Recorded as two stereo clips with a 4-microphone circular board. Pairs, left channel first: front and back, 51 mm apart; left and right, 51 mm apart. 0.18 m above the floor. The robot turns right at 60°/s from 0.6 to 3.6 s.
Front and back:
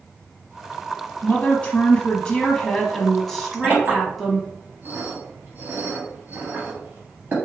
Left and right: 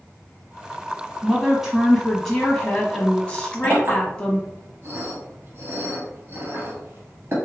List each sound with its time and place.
1.2 s a woman speaking: 40° right, 1.1 m; by 4.5 s 100° left, 1.1 m
3.6 s a clink: 125° right, 2.5 m